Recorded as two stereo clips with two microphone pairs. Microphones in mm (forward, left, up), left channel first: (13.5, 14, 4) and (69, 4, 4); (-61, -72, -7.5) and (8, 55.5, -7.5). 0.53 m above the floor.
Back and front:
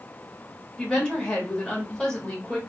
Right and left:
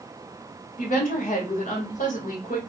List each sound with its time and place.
0.8 s a woman speaking: 115° right, 1.5 m